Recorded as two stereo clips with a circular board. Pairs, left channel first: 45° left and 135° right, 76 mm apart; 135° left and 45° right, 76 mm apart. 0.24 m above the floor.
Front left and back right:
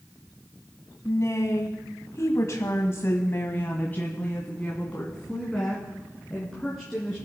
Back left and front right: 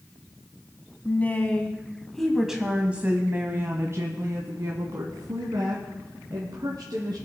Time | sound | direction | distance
1.1 | a woman speaking | 75° left | 1.5 m